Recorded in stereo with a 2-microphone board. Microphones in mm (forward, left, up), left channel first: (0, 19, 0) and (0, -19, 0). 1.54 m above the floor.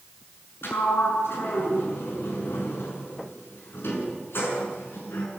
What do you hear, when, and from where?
0.6 s a sliding door: 80° left, 7 m